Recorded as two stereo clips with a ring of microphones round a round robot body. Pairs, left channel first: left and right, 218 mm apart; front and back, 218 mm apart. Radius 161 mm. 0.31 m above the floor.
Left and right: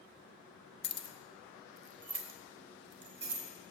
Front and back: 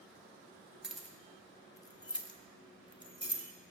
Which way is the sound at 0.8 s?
95° left.